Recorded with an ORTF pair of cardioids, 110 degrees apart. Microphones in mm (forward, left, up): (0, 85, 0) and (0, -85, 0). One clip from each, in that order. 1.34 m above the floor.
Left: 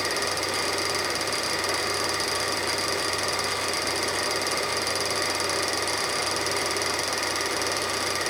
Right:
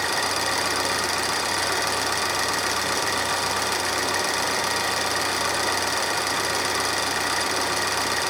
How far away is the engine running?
About 5 m.